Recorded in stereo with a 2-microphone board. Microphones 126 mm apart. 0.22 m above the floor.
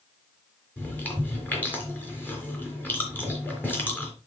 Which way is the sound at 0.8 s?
15° left (ahead or behind).